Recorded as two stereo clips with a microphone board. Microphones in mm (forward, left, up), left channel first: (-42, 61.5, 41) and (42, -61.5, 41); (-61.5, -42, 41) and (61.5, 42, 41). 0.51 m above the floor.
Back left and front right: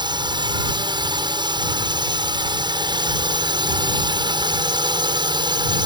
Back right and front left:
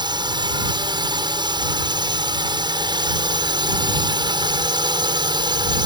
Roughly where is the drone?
Ahead.